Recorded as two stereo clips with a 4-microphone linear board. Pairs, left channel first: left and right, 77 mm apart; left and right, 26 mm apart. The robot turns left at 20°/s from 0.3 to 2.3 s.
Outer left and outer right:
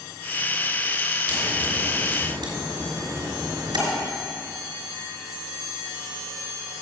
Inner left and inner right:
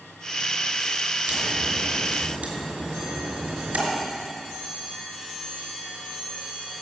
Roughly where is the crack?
Right.